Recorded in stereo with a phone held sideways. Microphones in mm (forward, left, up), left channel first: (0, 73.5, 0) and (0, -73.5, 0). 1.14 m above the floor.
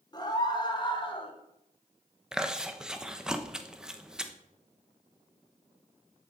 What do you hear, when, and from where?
0.1 s a scream: 30° left (ahead or behind), 3.5 m; by 1.3 s 35° left (ahead or behind), 2.5 m
2.3 s chewing: 5° right (ahead or behind), 1.1 m